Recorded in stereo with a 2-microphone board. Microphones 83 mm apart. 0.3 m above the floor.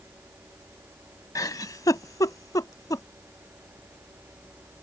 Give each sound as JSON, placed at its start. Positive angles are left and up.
{"t": 1.4, "sound": "a giggle", "side_deg": 50}